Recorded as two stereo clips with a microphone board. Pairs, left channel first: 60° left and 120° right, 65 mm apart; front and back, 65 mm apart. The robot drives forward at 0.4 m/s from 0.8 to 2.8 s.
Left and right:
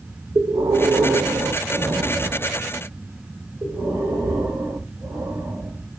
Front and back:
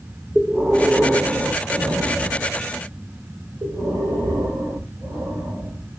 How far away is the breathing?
About 0.6 m.